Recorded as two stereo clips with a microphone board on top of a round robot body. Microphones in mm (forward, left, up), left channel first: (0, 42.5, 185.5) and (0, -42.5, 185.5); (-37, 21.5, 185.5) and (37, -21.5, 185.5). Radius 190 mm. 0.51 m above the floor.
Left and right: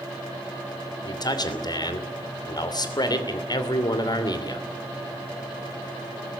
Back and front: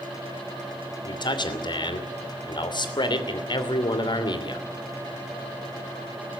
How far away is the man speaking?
About 3 m.